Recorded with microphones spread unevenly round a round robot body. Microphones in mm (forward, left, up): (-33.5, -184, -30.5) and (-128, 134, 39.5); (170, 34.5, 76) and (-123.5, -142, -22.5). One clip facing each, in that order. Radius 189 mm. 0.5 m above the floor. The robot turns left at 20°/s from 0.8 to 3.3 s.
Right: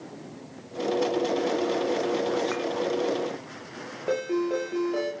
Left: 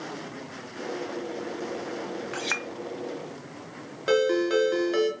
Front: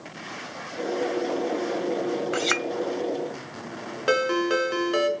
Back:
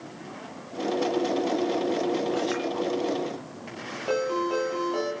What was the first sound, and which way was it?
A clink, 50° left.